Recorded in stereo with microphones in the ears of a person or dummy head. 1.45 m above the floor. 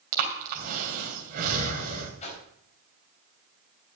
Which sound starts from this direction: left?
A whoosh, at 2.2 s.